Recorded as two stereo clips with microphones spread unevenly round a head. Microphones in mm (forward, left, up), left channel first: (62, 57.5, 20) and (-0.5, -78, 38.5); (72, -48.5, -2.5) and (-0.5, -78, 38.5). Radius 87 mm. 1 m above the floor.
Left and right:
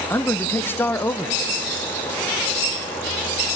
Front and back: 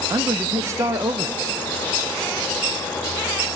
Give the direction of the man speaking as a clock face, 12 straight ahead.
8 o'clock.